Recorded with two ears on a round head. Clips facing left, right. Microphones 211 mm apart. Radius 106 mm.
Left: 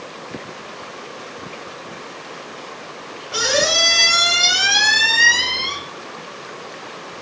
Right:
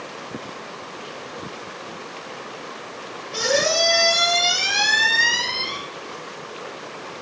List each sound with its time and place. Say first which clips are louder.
3.3 s a squeak: even; 80° left, 5 m